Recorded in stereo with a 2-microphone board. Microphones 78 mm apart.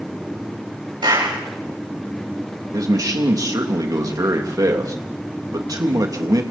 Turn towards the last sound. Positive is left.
turn(degrees=-50)  # may be behind; listen again after turning